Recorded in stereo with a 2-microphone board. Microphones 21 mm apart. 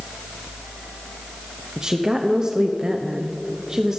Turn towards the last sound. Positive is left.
turn(degrees=-35)  # may be behind; listen again after turning